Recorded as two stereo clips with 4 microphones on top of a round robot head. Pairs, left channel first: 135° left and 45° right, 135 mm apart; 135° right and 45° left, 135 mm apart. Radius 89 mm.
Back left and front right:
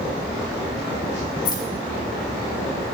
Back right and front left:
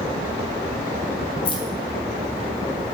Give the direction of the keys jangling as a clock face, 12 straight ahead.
6 o'clock.